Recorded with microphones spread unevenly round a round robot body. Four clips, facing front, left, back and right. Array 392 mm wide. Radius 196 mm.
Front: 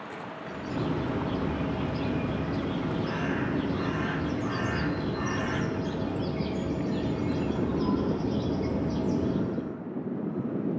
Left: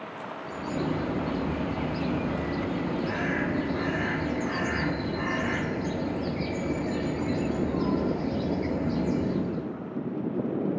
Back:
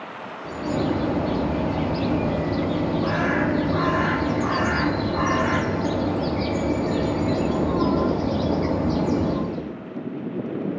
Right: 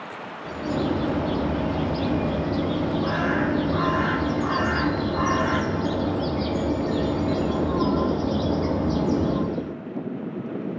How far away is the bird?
About 1.2 m.